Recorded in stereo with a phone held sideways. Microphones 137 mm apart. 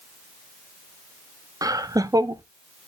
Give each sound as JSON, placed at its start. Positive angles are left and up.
{"t": 1.6, "sound": "laughter", "side_deg": -25, "distance_m": 0.7}